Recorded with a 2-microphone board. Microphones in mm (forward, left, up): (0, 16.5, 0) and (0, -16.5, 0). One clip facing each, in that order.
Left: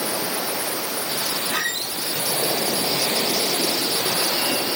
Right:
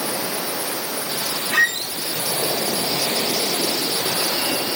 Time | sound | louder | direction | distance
1.5 | a squeak | right 11 dB | 70° right (ahead or behind) | 3 m